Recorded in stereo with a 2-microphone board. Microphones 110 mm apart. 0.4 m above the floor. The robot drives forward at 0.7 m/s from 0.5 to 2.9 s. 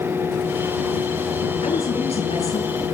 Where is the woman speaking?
65° left (ahead or behind), 6.5 m; by 2.7 s 70° left (ahead or behind), 6 m.